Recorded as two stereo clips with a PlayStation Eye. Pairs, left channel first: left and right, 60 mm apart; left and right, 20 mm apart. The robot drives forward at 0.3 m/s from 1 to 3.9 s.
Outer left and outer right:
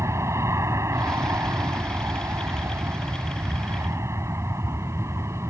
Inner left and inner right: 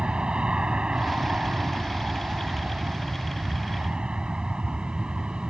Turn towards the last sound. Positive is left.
turn(degrees=-50)  # may be behind; listen again after turning